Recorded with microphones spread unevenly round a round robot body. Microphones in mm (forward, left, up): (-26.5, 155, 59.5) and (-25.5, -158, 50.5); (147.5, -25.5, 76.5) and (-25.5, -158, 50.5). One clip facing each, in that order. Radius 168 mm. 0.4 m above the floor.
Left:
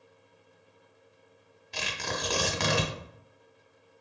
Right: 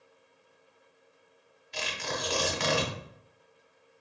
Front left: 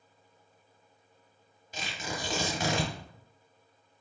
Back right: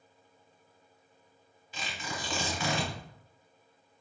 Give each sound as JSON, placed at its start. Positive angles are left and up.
{"t": 1.7, "sound": "tearing paper", "azimuth_deg": 80, "distance_m": 1.2}